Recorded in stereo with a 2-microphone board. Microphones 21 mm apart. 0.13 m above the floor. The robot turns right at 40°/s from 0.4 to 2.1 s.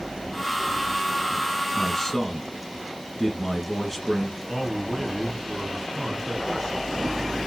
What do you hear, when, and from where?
1.8 s a man speaking: 20° left (ahead or behind), 1.3 m; by 4.4 s 10° left (ahead or behind), 1.3 m
4.5 s a man speaking: 20° right (ahead or behind), 1.6 m